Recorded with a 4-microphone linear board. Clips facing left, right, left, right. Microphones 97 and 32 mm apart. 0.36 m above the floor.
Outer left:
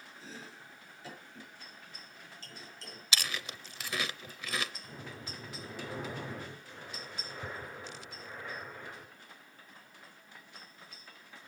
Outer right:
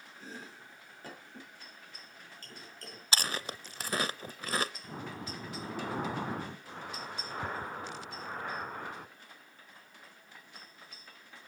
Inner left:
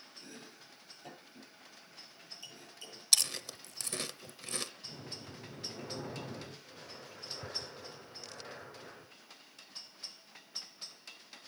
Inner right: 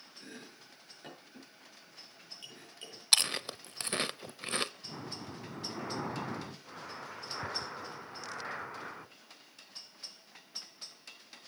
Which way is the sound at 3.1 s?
35° right (ahead or behind).